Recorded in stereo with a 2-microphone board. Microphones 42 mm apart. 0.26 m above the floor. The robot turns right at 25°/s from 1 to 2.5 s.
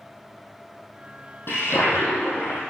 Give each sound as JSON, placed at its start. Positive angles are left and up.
{"t": 1.5, "sound": "a toilet flushing", "side_deg": 70, "distance_m": 3.5}